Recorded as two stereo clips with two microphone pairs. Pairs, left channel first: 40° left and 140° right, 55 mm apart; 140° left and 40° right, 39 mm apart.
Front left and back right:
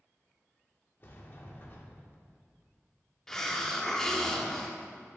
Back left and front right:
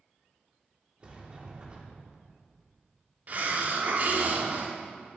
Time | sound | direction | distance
1.0 | a sliding door | 10° left | 0.9 m
3.3 | a hiss | 40° right | 0.6 m